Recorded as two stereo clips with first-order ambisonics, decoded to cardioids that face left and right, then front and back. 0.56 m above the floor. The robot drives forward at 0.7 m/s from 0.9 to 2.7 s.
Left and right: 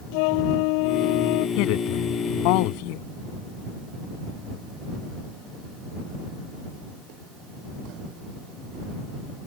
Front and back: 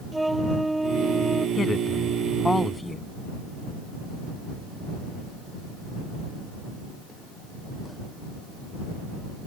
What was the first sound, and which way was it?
A flute, 95° left.